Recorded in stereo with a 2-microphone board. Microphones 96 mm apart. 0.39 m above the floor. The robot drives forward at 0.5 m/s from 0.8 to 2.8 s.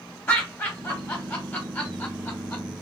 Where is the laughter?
20° left (ahead or behind), 1.0 m; by 2.6 s 15° left (ahead or behind), 1.2 m.